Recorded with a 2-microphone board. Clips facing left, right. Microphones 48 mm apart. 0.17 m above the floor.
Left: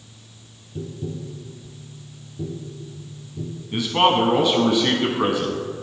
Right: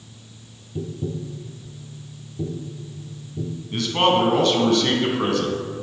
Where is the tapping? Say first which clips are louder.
Right 2 dB; 10° right (ahead or behind), 0.7 m.